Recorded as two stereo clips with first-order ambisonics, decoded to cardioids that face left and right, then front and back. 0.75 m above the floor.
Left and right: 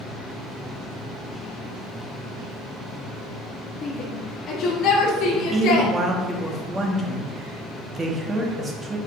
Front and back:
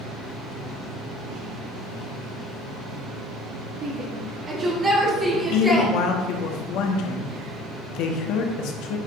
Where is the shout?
140° left, 1.5 m; by 5.9 s 90° left, 1.7 m.